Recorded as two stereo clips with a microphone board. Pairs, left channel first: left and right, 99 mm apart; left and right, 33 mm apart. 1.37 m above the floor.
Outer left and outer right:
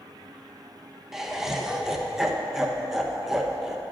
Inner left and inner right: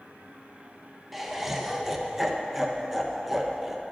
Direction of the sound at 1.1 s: 5° right (ahead or behind).